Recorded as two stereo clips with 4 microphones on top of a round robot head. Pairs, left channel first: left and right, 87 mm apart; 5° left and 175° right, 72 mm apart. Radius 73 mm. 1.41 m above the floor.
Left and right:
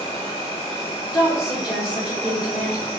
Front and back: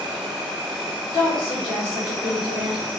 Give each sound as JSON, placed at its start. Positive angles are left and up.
{"t": 0.0, "sound": "an insect", "azimuth_deg": -140, "distance_m": 0.7}
{"t": 1.1, "sound": "a woman speaking", "azimuth_deg": -5, "distance_m": 1.5}